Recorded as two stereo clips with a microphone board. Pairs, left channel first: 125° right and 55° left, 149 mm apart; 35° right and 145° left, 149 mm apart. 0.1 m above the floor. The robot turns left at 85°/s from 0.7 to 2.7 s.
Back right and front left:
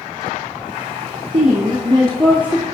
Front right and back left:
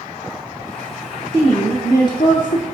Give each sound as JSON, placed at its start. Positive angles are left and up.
{"t": 1.3, "sound": "a woman speaking", "azimuth_deg": 75, "distance_m": 1.6}